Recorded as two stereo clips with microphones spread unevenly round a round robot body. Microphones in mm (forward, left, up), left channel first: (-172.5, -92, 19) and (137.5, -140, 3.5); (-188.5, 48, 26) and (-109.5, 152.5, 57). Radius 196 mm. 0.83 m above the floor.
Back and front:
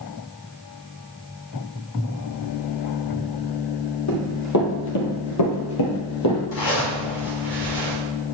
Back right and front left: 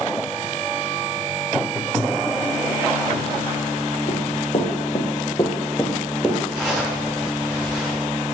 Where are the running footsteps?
160° right, 1.9 m; by 6.4 s 130° left, 1.6 m.